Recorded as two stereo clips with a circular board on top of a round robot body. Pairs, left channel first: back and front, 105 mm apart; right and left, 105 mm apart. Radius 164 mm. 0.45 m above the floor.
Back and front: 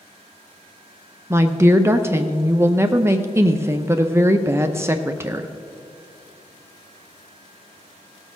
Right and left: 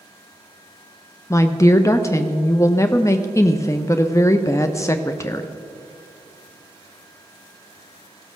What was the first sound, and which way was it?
A woman speaking, 50° right.